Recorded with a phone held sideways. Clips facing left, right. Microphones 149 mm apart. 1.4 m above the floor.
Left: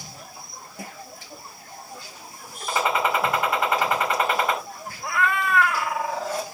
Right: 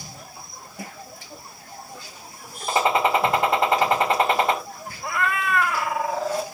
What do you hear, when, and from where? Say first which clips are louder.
2.7 s a gunshot: right 3 dB; 30° right (ahead or behind), 1.9 m
5.0 s a cat meowing: left 1 dB; centre (ahead or behind), 1.0 m